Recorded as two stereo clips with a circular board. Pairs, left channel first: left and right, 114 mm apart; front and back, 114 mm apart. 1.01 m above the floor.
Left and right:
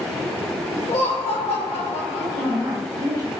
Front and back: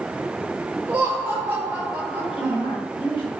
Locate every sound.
0.9 s laughter: 105° left, 4 m
2.2 s a woman speaking: 35° right, 1.7 m